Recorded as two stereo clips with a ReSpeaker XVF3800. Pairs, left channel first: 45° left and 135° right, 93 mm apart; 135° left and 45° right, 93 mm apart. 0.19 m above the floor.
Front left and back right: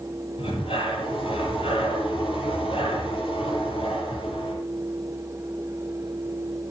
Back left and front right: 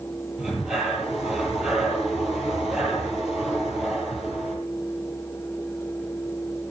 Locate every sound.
0.4 s breathing: 40° left, 6 m